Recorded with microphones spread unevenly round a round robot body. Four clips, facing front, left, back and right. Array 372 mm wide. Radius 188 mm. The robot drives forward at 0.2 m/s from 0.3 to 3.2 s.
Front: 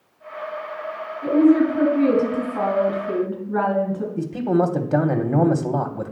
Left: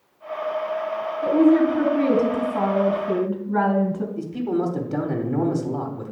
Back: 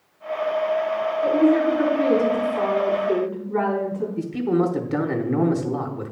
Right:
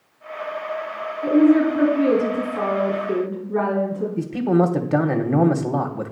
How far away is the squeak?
I don't hear a squeak.